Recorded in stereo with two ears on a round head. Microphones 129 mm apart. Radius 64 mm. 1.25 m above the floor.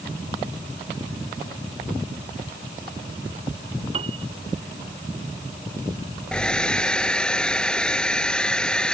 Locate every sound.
3.9 s a piano: 40° right (ahead or behind)
6.3 s a hair dryer: 5° left (ahead or behind)